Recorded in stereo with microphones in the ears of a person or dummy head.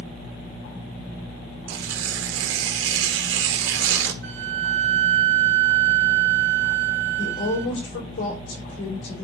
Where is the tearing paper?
60° right (ahead or behind), 0.9 m.